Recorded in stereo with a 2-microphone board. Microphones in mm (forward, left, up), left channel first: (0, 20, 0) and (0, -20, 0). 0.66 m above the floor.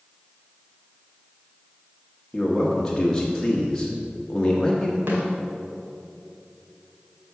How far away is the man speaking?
About 1.0 m.